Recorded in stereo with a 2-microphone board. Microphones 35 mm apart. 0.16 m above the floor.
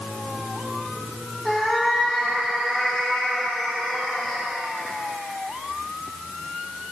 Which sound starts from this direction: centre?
A cat meowing, at 1.4 s.